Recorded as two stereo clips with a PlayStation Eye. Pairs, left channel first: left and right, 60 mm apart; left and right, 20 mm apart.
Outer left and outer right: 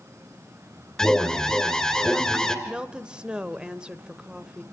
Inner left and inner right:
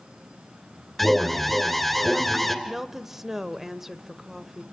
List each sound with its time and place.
1.0 s an alarm: 10° left (ahead or behind), 2.5 m
2.6 s a woman speaking: 15° right (ahead or behind), 1.0 m